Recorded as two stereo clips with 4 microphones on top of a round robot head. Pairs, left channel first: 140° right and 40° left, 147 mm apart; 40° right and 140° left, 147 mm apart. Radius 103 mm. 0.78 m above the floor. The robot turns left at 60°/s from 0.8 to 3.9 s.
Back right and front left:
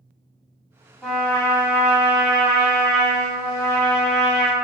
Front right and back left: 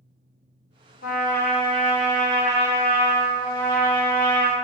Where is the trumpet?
45° right, 2 m; by 4.5 s 140° left, 2 m.